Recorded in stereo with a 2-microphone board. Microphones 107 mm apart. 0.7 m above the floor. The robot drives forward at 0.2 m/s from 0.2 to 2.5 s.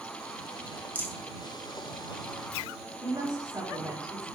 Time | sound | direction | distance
0.9 | a rattle | 20° right (ahead or behind) | 0.6 m
3.0 | a woman speaking | 40° right (ahead or behind) | 0.9 m